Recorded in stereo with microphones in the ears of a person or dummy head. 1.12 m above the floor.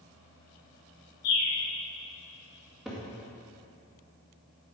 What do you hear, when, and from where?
1.2 s a bird: 80° left, 2.5 m
2.9 s a cupboard door: 10° right (ahead or behind), 1.9 m